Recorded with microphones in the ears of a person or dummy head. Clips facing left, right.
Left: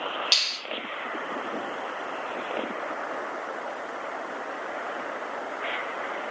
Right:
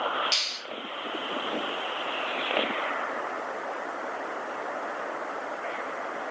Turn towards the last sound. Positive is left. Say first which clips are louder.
# even
turn(degrees=60)  # may be behind; listen again after turning